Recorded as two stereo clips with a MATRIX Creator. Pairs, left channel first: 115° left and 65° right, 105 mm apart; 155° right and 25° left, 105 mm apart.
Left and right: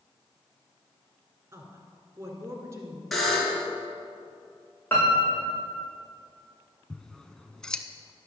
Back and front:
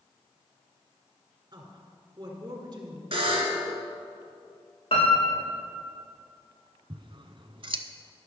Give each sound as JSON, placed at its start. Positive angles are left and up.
{"t": 1.5, "sound": "a woman speaking", "azimuth_deg": -10, "distance_m": 1.8}
{"t": 3.1, "sound": "a buzzer", "azimuth_deg": 25, "distance_m": 2.0}
{"t": 4.9, "sound": "a piano", "azimuth_deg": -175, "distance_m": 3.0}
{"t": 6.9, "sound": "scissors", "azimuth_deg": 30, "distance_m": 0.5}